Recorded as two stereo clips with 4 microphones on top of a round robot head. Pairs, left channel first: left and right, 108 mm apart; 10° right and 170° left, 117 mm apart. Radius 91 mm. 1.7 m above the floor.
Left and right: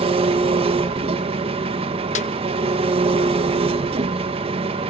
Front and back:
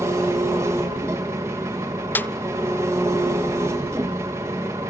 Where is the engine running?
115° right, 1.6 m.